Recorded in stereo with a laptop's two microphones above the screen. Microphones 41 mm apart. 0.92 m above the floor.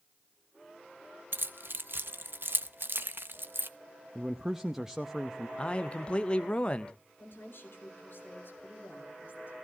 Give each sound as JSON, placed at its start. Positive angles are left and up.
{"t": 1.3, "sound": "keys jangling", "side_deg": -65, "distance_m": 0.5}
{"t": 4.2, "sound": "a man speaking", "side_deg": -5, "distance_m": 0.7}
{"t": 5.6, "sound": "a man speaking", "side_deg": 25, "distance_m": 0.5}
{"t": 7.2, "sound": "a woman speaking", "side_deg": 60, "distance_m": 4.0}